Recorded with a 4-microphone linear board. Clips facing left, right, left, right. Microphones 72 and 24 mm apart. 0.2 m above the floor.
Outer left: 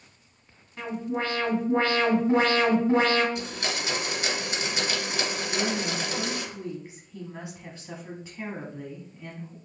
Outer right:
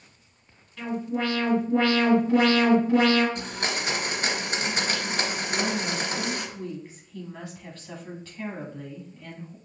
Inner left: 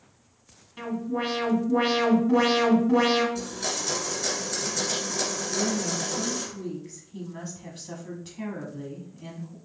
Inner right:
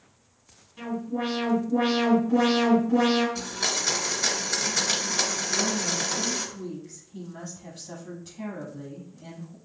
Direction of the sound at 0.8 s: 30° left (ahead or behind).